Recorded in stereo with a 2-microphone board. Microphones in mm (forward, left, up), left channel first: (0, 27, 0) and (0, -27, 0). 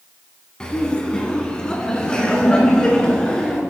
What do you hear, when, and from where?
0.6 s laughter: 15° left (ahead or behind), 2 m